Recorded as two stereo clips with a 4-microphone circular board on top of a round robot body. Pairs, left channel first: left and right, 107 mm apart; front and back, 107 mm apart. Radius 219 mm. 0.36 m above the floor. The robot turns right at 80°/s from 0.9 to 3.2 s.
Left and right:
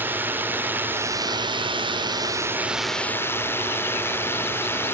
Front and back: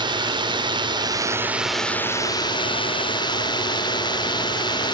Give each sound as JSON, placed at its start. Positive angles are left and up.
{"t": 0.0, "sound": "a drone", "azimuth_deg": -155}